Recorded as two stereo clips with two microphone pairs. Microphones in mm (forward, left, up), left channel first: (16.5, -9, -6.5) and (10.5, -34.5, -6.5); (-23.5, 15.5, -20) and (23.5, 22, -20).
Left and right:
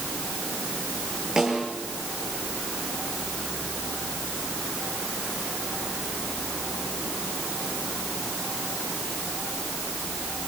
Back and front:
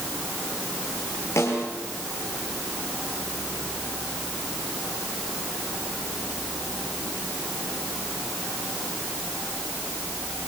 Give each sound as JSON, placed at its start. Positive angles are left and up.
{"t": 1.4, "sound": "a snare drum", "azimuth_deg": -175, "distance_m": 7.5}